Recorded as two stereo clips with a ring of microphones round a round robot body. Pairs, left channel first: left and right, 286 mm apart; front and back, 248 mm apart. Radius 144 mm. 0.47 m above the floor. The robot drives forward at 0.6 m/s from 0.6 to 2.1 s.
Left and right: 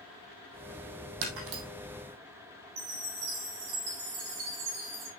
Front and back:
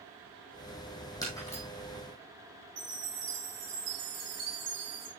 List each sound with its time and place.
1.2 s breaking glass: 80° right, 3 m; by 1.6 s 85° right, 3 m
2.8 s a chime: 130° right, 4 m